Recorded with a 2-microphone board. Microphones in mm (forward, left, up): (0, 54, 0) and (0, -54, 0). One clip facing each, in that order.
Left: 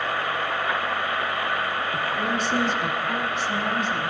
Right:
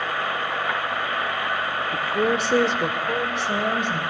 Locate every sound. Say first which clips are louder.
1.9 s a woman speaking: right 7 dB; 75° right (ahead or behind), 1.9 m; by 4.0 s 65° right (ahead or behind), 4 m